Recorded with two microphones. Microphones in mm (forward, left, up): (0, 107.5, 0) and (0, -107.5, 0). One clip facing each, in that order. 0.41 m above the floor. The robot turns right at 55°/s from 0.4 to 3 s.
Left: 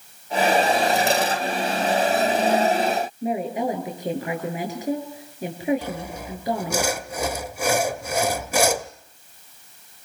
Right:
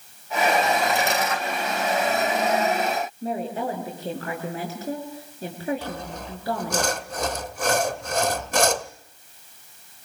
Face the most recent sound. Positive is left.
turn(degrees=10)  # may be behind; listen again after turning